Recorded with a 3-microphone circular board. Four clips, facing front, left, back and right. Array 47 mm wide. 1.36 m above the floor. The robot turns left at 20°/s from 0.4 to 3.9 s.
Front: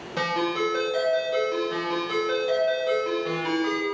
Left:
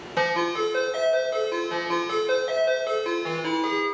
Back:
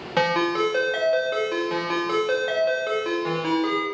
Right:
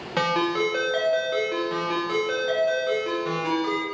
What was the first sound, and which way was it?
A ringtone, 155° right.